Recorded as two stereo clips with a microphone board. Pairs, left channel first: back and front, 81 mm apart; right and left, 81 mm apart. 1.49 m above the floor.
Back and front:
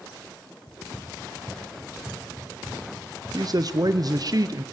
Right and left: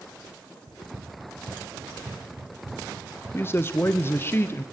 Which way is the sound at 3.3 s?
30° right.